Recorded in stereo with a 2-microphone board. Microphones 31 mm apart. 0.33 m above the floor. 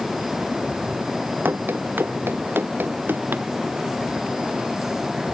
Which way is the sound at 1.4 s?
85° right.